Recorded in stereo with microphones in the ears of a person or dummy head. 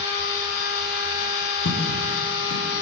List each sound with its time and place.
0.0 s a machine running: 60° left (ahead or behind), 5 m
1.6 s footsteps: 65° left (ahead or behind), 7 m